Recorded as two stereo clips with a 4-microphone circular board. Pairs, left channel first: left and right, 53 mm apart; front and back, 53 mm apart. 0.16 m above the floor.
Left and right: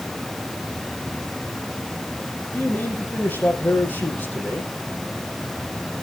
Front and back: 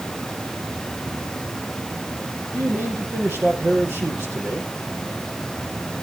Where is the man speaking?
140° left, 5.5 m.